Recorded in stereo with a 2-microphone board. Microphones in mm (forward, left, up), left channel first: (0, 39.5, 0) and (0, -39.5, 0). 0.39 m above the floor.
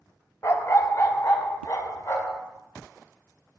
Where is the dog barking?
40° left (ahead or behind), 0.7 m; by 2.4 s 50° left (ahead or behind), 1.7 m.